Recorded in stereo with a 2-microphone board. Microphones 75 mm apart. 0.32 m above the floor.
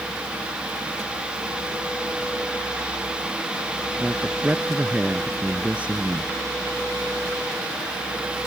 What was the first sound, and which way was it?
A man speaking, 15° right (ahead or behind).